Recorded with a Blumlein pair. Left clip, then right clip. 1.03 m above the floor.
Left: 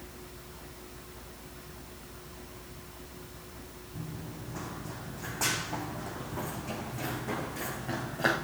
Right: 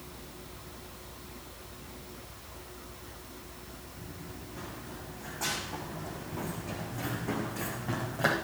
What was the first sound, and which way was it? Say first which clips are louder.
Running footsteps: left 5 dB; 40° left.